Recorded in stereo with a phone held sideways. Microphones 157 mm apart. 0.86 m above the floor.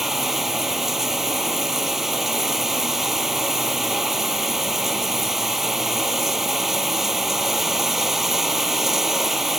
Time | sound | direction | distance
0.0 | running water | centre (ahead or behind) | ?